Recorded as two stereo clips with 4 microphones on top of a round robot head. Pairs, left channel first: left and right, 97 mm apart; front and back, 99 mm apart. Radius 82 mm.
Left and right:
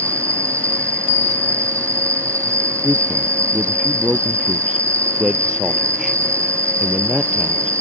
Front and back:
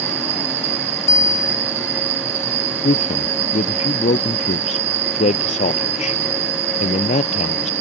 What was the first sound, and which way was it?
An insect, 150° right.